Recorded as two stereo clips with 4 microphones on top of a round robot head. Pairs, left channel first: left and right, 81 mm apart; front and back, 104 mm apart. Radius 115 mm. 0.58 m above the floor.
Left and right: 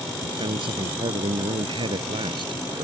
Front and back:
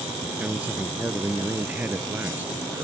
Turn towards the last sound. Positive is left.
turn(degrees=-105)